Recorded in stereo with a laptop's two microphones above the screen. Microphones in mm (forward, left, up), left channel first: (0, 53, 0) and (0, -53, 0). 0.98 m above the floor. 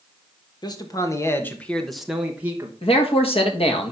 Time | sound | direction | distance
0.6 | a man speaking | 40° left (ahead or behind) | 1.2 m
2.8 | a man speaking | 65° left (ahead or behind) | 1.5 m